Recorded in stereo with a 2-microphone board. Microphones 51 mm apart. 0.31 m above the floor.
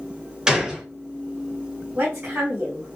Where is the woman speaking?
45° right (ahead or behind), 2.0 m.